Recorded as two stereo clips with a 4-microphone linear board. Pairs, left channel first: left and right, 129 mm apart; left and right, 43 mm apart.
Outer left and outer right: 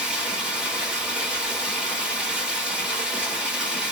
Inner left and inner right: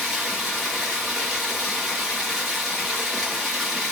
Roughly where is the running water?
Centre.